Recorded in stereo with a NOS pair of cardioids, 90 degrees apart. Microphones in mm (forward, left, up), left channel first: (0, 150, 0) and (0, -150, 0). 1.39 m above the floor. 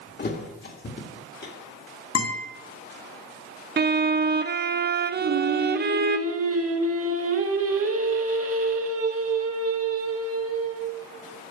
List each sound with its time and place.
0.2 s a thud: 30° left, 2.5 m
2.1 s a guitar: 50° left, 4 m
3.8 s a violin: 30° right, 0.8 m
5.2 s singing: 45° right, 2 m